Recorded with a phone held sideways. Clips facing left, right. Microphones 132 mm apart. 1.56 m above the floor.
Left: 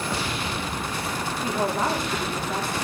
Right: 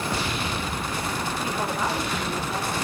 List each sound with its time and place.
1.4 s a woman speaking: 55° left (ahead or behind), 3 m